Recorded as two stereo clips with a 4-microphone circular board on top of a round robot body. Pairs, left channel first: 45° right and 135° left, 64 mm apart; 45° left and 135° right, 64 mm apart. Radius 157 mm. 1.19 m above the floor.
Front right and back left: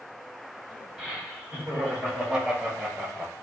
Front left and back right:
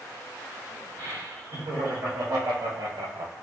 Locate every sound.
1.0 s laughter: 135° right, 4 m; by 3.3 s 150° right, 1.0 m